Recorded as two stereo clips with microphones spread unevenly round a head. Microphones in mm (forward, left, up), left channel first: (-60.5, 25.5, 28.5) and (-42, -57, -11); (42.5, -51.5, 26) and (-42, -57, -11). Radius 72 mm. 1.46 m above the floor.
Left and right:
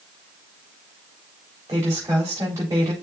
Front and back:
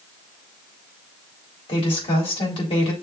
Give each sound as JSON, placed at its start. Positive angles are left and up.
{"t": 1.7, "sound": "a woman speaking", "azimuth_deg": -5, "distance_m": 3.5}